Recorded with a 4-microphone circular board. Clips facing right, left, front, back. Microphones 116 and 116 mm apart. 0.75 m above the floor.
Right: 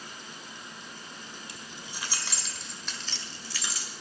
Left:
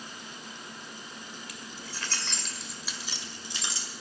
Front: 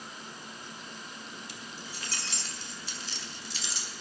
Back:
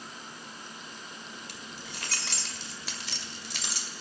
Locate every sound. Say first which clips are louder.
1.5 s keys jangling: left 1 dB, even; 150° right, 1.8 m; by 3.9 s 150° left, 2 m